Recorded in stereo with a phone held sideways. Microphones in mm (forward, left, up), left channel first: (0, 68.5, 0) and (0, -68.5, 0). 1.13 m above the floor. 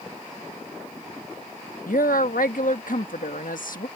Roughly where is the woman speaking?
Left.